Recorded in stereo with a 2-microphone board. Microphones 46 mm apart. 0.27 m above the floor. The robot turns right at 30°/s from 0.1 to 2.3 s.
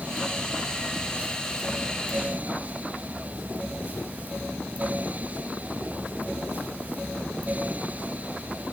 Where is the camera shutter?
No camera shutter in this recording.